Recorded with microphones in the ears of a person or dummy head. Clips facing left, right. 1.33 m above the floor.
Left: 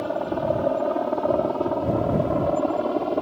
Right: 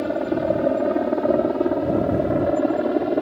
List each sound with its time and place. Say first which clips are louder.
0.0 s a helicopter: right 3 dB; 25° right (ahead or behind); by 3.2 s 20° right (ahead or behind)